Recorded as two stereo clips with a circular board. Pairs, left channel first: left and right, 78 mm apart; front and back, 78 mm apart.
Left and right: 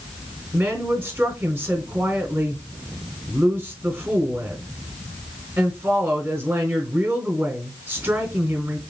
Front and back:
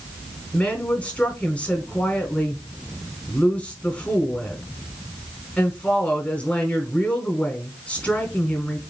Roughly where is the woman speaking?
Ahead right.